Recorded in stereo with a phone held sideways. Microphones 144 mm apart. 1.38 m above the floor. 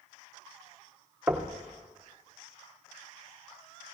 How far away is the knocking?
About 0.8 m.